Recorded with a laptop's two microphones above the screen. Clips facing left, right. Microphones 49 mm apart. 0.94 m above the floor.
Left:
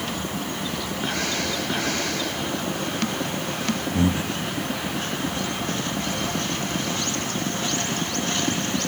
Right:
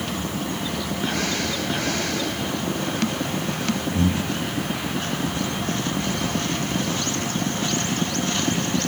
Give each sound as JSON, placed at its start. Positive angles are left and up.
{"t": 3.9, "sound": "breathing", "side_deg": 20, "distance_m": 0.7}